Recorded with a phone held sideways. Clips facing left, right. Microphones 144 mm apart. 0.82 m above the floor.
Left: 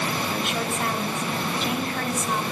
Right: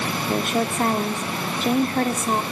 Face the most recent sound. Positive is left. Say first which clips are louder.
# right 4 dB
turn(degrees=-40)  # may be behind; listen again after turning